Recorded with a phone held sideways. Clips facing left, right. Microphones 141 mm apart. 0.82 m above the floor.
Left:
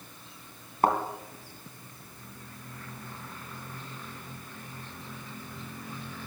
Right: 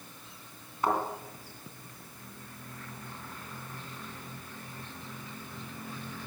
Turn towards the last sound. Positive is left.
turn(degrees=50)  # may be behind; listen again after turning